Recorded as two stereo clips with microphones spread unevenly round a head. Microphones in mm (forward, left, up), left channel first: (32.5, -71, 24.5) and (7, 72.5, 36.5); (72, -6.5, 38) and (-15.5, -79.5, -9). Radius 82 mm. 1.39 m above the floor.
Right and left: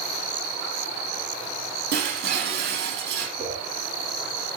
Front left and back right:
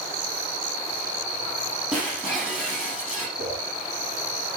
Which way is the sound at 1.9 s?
130° left.